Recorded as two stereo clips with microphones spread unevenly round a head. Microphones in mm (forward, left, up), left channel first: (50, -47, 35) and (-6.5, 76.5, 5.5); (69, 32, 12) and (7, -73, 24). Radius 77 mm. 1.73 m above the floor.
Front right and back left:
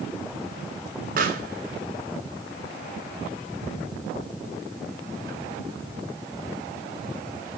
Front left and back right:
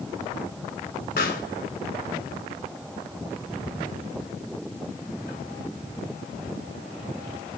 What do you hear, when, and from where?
1.2 s a pop: 95° left, 3 m